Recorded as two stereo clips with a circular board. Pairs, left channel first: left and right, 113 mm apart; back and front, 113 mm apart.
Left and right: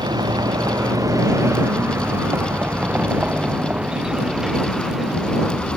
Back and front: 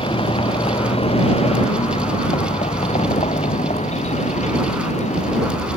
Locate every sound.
0.0 s a vehicle: 140° right; by 5.8 s 175° left